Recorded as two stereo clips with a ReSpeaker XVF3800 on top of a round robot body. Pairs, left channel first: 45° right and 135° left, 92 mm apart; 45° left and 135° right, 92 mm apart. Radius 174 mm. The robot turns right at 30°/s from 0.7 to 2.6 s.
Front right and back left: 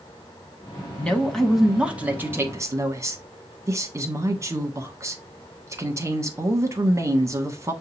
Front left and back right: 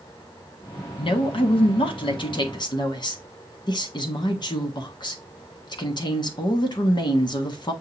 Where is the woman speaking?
30° left, 1.6 m; by 7.7 s 80° left, 1.6 m.